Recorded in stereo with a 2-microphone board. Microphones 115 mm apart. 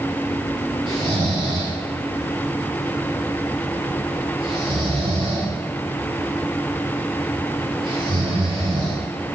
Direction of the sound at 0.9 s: 45° right (ahead or behind).